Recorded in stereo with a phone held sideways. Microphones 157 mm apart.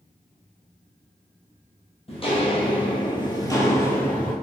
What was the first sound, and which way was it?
Footsteps, 40° left (ahead or behind).